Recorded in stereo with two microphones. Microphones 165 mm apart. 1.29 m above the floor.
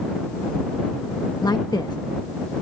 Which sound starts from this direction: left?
A woman speaking, at 1.4 s.